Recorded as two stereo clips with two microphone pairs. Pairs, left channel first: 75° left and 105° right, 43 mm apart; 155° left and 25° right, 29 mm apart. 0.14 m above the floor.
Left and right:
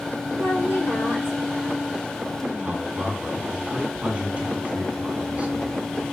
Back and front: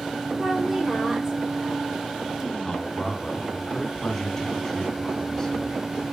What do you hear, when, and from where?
0.4 s a woman speaking: 50° left, 4 m
2.6 s a man speaking: 140° right, 2 m